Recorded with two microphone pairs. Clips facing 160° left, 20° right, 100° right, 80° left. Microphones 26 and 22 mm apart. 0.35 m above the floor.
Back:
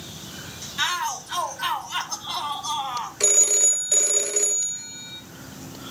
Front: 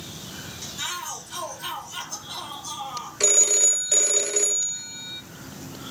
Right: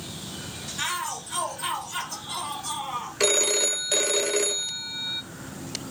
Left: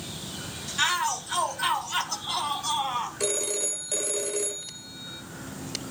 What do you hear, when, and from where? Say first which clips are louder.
0.8 s a shout: back 8 dB, left 5 dB; 135° left, 2.5 m
3.2 s a phone ringing: front 1 dB, right 6 dB; 110° right, 0.5 m